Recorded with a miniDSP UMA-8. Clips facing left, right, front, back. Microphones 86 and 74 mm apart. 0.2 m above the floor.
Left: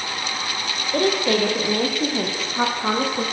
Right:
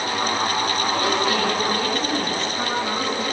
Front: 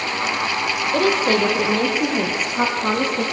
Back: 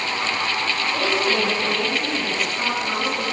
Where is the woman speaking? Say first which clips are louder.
Left 5 dB, front 5 dB; 45° left, 6.5 m; by 3.2 s 40° left, 9 m.